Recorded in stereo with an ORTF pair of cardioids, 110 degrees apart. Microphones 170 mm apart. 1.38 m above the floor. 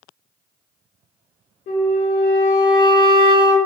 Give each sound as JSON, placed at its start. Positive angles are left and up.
{"t": 1.7, "sound": "a flute", "azimuth_deg": 65, "distance_m": 1.1}